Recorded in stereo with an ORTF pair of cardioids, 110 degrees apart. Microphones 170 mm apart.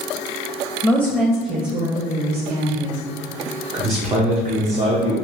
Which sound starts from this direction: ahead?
A woman speaking, at 0.8 s.